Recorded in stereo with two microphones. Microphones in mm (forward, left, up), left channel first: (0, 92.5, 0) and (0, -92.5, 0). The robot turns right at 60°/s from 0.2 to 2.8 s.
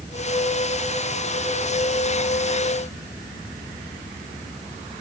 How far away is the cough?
No cough in this recording.